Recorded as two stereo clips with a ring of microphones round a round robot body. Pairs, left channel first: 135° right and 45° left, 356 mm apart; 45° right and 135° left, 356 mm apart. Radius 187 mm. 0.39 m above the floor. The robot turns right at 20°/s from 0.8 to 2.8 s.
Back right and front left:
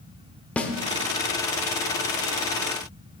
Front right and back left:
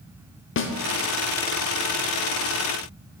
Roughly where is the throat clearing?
No throat clearing in this recording.